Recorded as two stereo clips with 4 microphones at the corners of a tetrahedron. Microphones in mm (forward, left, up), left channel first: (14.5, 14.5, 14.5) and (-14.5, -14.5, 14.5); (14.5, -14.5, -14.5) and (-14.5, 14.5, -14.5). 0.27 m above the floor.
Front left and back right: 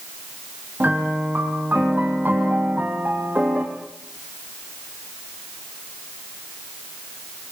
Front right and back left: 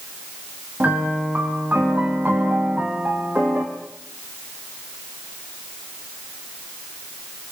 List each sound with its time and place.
0.8 s a piano: straight behind, 4.5 m